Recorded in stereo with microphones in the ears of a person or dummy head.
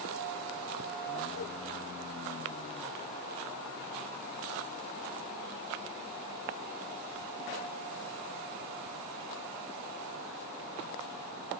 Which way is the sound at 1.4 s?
65° left (ahead or behind).